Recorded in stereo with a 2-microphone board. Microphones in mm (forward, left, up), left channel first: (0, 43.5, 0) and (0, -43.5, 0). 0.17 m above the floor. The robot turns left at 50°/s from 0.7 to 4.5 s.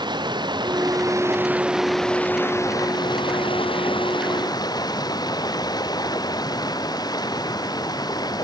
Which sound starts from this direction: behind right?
Running water, at 0.0 s.